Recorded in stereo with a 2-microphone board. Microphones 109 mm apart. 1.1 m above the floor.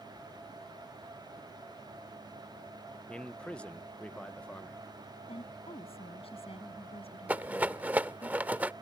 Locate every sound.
3.1 s a man speaking: 10° left (ahead or behind)
5.3 s a woman speaking: 60° left (ahead or behind)
7.3 s a rattle: 15° right (ahead or behind)